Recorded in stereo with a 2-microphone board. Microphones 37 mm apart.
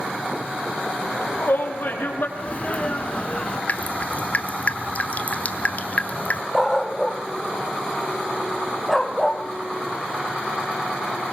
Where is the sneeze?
35° left (ahead or behind), 1.8 m.